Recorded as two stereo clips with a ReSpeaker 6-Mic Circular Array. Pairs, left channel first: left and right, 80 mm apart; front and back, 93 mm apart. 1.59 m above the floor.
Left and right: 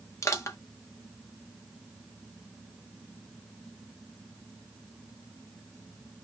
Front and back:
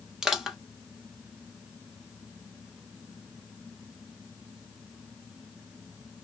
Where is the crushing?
95° left, 0.9 m.